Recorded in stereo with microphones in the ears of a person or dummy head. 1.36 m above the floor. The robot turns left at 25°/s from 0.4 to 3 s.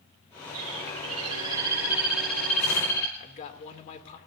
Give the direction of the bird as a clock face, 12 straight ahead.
5 o'clock.